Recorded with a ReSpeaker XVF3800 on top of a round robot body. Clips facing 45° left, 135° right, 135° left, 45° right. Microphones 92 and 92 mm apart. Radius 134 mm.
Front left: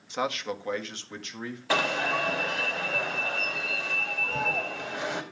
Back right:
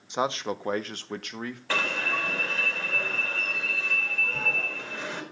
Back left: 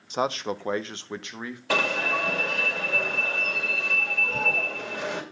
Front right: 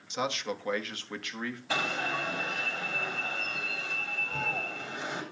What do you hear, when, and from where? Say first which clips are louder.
0.1 s a man speaking: back right 2 dB, back left 6 dB; 160° left, 0.9 m; by 1.6 s 155° right, 1.6 m
1.7 s an alarm: front left 4 dB, back left 7 dB; 120° left, 2 m